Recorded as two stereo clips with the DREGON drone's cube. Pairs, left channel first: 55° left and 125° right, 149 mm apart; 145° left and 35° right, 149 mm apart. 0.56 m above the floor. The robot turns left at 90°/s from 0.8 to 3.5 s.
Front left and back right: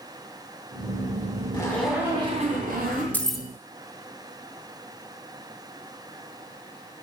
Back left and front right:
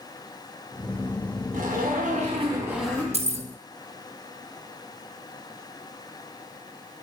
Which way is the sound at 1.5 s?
5° right.